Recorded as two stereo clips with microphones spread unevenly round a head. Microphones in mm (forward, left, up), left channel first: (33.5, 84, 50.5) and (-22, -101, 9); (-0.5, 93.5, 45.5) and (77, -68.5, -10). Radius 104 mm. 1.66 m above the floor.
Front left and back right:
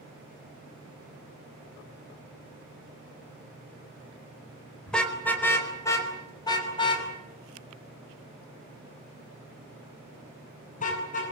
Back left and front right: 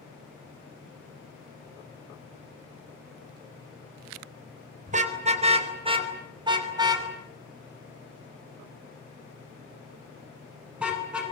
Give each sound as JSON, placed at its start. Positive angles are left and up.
{"t": 4.9, "sound": "a car horn", "azimuth_deg": -10, "distance_m": 3.5}